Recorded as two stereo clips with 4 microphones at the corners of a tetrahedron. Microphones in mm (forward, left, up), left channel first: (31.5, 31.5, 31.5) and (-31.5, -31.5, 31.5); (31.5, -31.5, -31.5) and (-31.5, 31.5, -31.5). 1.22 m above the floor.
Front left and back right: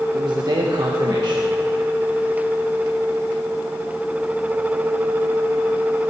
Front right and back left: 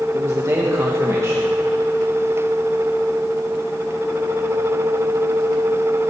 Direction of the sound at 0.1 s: 170° right.